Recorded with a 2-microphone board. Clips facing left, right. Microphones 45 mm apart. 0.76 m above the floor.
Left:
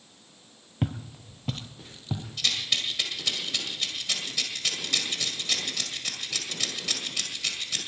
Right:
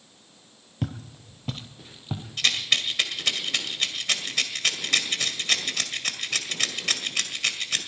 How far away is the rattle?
About 1.9 m.